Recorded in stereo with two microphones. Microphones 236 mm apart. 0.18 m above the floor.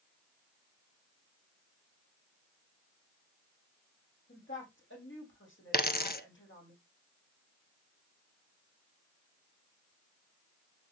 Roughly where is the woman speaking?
Left.